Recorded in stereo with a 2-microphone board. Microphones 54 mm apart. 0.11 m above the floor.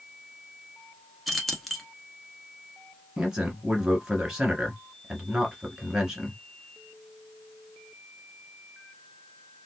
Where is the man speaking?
15° right (ahead or behind), 1.3 m.